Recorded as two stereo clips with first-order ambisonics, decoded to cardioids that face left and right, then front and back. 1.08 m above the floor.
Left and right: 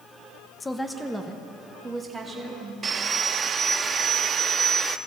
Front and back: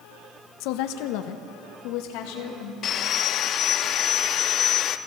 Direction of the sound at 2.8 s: 35° right.